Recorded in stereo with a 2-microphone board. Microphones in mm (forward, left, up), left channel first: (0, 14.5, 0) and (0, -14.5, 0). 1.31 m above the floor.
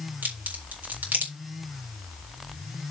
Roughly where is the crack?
Right.